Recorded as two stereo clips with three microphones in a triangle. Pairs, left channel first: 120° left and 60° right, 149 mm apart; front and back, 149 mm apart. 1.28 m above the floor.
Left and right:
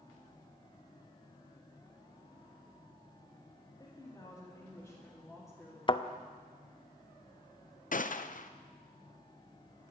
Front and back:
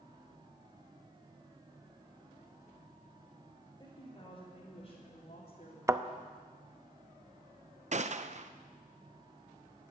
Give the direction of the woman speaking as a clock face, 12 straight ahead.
10 o'clock.